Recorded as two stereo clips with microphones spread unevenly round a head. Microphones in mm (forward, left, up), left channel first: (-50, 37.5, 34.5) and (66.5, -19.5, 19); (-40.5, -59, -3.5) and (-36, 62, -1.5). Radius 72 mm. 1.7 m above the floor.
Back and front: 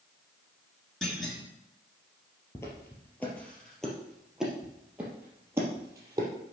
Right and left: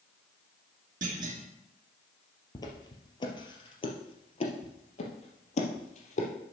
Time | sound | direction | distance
1.0 | a clunk | 70° left | 2 m
2.5 | footsteps | 145° right | 2.5 m